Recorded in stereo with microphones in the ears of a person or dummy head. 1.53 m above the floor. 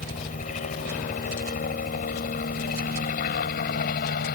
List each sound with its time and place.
0.0 s a helicopter: 40° left (ahead or behind); by 4.4 s 50° left (ahead or behind)